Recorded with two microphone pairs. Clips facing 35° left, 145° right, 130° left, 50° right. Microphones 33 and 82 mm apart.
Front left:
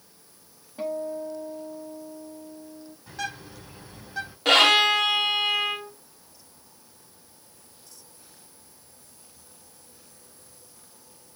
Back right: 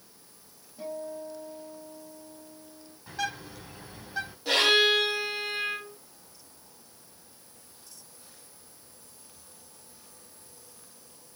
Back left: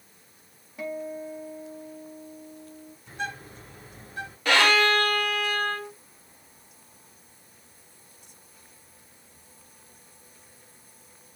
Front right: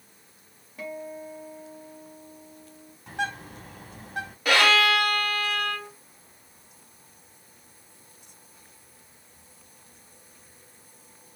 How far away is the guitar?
About 2 m.